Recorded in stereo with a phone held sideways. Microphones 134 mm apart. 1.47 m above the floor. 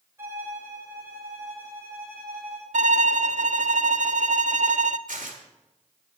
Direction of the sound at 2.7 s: 65° right (ahead or behind).